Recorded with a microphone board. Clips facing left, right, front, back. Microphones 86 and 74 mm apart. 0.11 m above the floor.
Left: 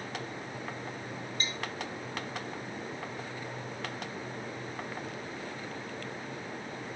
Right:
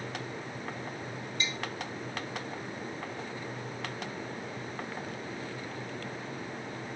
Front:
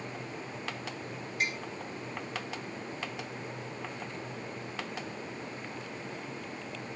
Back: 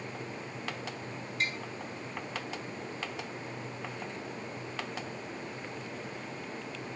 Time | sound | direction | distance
1.4 | tapping | 75° left | 1.9 m